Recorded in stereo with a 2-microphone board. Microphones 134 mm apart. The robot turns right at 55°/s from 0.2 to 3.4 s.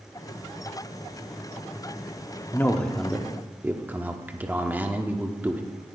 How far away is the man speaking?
About 1.1 m.